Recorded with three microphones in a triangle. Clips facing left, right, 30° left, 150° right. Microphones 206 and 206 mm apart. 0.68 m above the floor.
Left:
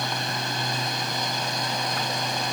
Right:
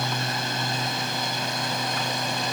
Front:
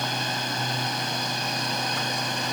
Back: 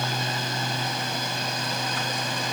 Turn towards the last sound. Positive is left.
No sound to turn to.